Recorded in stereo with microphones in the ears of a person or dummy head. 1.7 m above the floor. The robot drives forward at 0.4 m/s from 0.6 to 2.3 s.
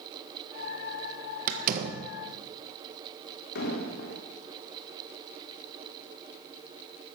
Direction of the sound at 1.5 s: 40° right (ahead or behind).